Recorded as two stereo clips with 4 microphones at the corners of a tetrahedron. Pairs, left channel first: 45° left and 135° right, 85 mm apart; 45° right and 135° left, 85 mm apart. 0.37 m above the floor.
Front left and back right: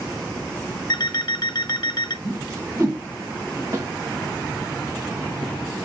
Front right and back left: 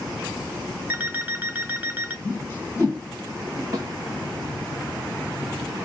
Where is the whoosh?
100° right, 1.8 m.